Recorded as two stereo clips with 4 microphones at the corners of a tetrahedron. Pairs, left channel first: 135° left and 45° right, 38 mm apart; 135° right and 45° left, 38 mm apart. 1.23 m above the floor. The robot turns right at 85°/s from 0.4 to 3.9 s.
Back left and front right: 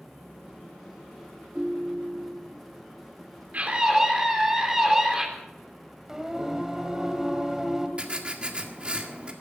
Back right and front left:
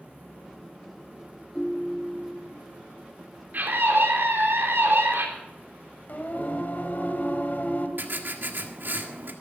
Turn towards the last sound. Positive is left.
turn(degrees=15)